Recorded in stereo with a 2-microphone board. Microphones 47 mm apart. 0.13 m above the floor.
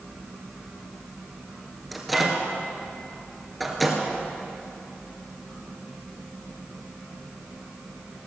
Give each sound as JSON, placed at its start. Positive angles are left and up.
{"t": 1.9, "sound": "a microwave", "side_deg": 0, "distance_m": 2.0}